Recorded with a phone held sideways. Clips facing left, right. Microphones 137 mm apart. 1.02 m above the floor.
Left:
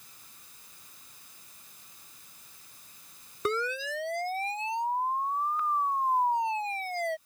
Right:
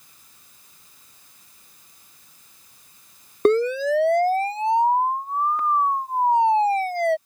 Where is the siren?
60° right (ahead or behind); by 7.2 s 70° right (ahead or behind).